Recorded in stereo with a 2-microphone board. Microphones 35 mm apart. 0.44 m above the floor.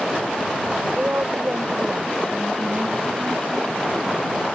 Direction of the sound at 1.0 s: 45° right (ahead or behind).